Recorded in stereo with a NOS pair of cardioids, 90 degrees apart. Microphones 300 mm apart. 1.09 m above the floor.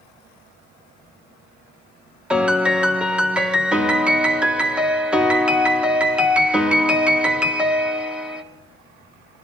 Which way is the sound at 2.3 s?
5° right.